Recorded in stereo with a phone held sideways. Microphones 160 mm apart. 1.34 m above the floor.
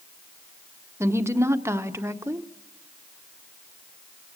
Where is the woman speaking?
15° right (ahead or behind), 1.0 m.